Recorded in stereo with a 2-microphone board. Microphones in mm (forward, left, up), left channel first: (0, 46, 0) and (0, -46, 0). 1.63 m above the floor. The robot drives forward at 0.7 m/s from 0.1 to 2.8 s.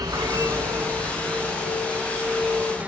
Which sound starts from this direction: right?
An insect, at 0.0 s.